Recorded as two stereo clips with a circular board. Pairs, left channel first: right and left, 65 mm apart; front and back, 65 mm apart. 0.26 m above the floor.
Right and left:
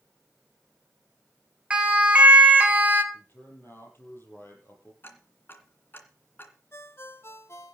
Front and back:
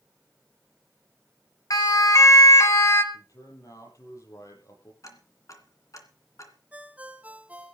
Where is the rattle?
No rattle in this recording.